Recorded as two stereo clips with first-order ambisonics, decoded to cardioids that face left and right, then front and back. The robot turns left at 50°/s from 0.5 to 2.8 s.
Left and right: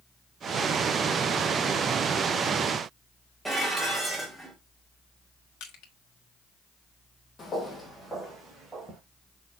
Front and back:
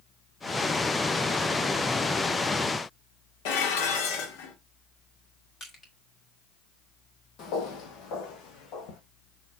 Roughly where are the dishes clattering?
Ahead.